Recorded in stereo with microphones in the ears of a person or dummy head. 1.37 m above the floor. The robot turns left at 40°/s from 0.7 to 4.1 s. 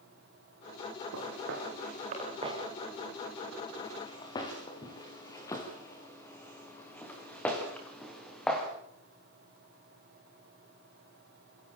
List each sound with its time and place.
1.1 s footsteps: 75° right (ahead or behind), 8 m; by 8.7 s 5° left (ahead or behind), 7 m